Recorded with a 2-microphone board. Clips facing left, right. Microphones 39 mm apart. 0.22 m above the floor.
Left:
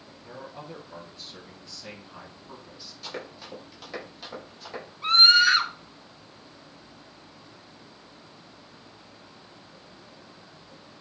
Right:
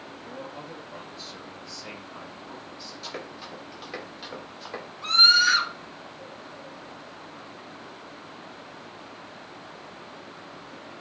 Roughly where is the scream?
Left.